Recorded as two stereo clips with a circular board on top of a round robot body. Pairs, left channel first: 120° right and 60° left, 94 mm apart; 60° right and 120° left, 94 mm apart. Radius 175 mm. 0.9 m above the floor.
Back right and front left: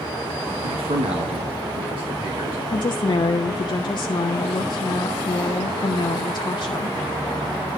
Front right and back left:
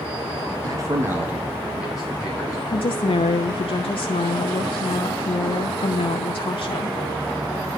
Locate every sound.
0.6 s a man speaking: 70° left, 1.2 m; by 2.6 s 25° left, 2 m
2.7 s a woman speaking: 80° right, 0.6 m